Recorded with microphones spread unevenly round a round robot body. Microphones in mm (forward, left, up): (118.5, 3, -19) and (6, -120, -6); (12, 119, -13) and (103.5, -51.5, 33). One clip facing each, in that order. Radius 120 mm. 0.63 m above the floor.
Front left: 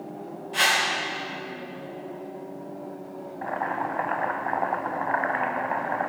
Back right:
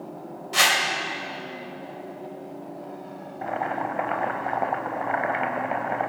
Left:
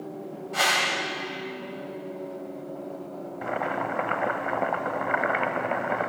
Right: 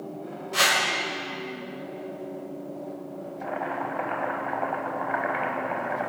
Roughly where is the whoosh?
Behind right.